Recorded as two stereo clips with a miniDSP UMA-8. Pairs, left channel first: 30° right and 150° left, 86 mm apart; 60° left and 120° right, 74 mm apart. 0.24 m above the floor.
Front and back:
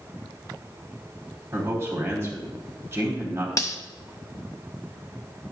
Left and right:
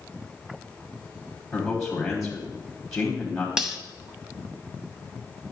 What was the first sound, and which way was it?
A man speaking, 140° left.